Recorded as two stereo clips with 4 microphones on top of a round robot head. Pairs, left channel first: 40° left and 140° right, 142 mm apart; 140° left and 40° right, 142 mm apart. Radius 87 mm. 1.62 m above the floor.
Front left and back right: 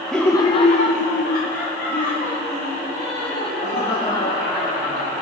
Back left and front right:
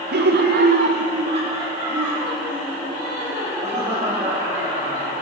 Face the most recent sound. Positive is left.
turn(degrees=35)